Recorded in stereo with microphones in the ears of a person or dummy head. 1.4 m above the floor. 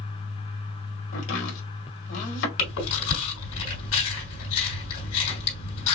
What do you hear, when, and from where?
1.1 s chopping: 70° left (ahead or behind), 3 m
2.6 s chewing: 75° left (ahead or behind), 3.5 m